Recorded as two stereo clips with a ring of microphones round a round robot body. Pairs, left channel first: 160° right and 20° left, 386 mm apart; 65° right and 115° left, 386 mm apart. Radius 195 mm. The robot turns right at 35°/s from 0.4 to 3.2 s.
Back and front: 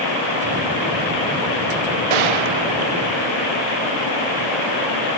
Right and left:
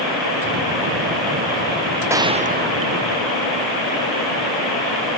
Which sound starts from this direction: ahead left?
A gunshot, at 2.1 s.